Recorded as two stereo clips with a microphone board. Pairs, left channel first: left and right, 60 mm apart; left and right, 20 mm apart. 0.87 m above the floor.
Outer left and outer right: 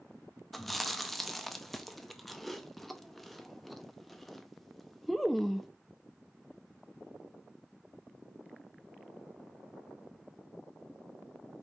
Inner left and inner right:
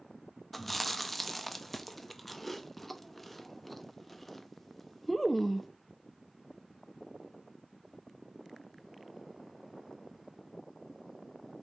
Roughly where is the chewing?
Centre.